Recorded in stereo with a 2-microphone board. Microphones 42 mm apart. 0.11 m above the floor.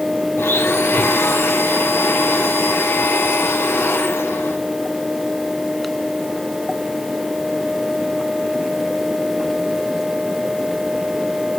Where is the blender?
70° left (ahead or behind), 4 m.